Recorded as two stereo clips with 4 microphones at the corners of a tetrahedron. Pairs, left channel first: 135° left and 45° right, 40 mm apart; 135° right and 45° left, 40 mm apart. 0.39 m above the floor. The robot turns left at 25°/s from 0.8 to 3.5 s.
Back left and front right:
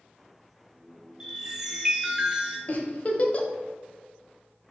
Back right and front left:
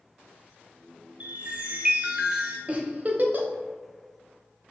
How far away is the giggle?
About 0.6 m.